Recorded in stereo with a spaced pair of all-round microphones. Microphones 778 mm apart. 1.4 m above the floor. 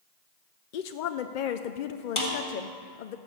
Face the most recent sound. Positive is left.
turn(degrees=40)  # may be behind; listen again after turning